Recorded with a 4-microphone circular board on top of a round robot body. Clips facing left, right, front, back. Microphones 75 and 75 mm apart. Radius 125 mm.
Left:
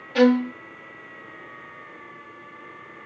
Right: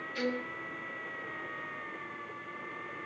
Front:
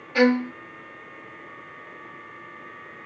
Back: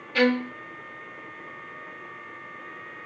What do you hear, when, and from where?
0.1 s a violin: 75° left, 0.5 m